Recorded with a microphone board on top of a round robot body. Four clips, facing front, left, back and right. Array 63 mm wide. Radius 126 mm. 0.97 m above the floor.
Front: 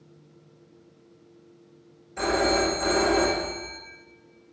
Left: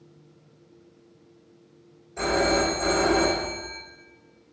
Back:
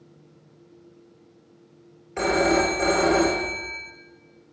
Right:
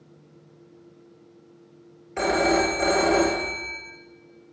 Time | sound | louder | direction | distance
2.2 | a phone ringing | right 2 dB, back 3 dB | 135° right | 2.5 m